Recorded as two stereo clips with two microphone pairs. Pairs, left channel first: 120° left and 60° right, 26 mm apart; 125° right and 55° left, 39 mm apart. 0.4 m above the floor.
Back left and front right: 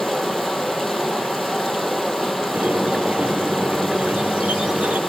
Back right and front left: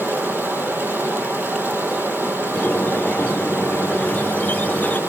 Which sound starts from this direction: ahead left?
Running water, at 0.0 s.